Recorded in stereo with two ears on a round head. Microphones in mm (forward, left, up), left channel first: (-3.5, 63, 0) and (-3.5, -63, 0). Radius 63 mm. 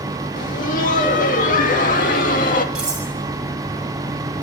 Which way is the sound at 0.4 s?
65° left (ahead or behind).